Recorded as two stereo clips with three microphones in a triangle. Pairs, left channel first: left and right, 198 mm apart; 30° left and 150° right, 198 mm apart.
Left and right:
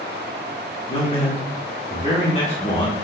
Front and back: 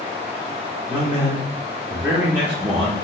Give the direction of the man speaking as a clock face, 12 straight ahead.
7 o'clock.